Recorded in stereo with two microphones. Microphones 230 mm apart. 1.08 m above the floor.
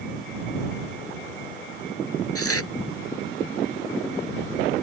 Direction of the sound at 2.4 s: 80° left.